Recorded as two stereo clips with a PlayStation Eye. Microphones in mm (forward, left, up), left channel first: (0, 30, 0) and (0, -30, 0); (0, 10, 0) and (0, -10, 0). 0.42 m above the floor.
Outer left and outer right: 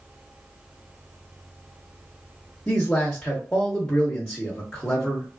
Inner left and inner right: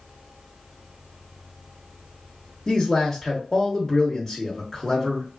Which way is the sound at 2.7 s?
15° left (ahead or behind).